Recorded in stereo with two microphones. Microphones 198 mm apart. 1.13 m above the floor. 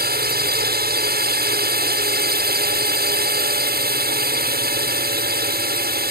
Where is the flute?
No flute in this recording.